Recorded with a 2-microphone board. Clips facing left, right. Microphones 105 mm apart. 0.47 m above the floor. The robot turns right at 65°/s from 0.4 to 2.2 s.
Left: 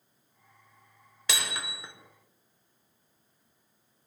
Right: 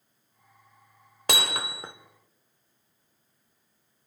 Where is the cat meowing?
No cat meowing in this recording.